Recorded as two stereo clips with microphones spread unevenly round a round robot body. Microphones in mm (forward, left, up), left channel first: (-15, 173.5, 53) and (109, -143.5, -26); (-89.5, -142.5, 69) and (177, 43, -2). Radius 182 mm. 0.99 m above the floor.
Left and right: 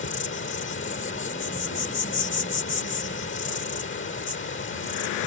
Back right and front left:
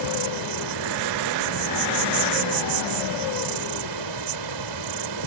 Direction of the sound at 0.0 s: 55° left.